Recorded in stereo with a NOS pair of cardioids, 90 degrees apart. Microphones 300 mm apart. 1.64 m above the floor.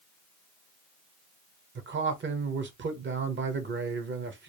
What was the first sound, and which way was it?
A man speaking, 40° right.